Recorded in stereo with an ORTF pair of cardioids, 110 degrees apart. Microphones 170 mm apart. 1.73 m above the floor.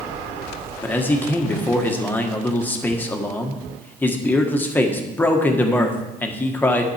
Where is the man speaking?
10° left, 1.5 m.